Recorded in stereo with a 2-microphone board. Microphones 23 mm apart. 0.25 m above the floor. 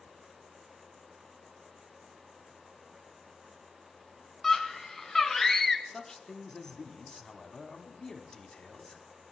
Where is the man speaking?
20° left (ahead or behind), 1.7 m.